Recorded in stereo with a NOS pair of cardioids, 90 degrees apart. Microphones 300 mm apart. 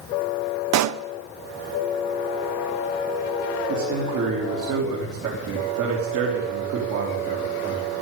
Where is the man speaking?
65° right, 3.5 m.